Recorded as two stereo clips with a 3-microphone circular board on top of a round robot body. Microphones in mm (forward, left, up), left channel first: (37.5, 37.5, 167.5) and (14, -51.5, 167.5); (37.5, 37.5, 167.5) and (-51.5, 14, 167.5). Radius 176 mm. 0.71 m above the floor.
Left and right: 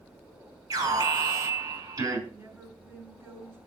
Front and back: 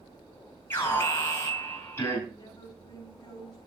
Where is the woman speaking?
35° right, 8 m.